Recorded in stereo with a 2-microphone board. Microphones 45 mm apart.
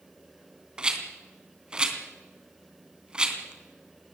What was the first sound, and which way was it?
A rattle, 20° right (ahead or behind).